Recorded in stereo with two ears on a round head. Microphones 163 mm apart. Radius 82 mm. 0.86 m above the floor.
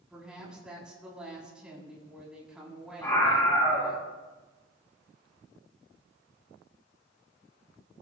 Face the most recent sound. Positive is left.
turn(degrees=15)  # may be behind; listen again after turning